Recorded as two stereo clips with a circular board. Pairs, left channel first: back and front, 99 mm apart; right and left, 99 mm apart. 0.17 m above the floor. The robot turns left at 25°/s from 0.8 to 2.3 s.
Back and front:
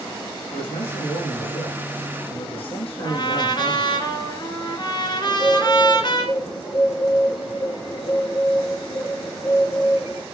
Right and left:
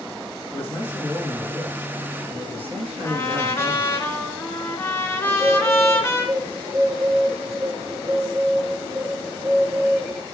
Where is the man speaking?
160° right, 6.5 m; by 4.0 s 165° left, 6.5 m.